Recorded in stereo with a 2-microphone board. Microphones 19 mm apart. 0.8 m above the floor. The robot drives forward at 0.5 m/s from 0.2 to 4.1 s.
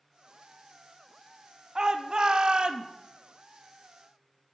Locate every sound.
1.8 s a shout: 35° right (ahead or behind), 1.3 m; by 2.9 s 50° right (ahead or behind), 1.0 m